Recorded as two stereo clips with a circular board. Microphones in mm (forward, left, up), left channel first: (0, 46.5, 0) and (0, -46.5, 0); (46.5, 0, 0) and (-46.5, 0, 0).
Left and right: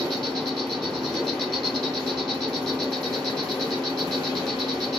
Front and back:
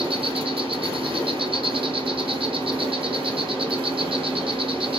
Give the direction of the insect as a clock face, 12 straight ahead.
6 o'clock.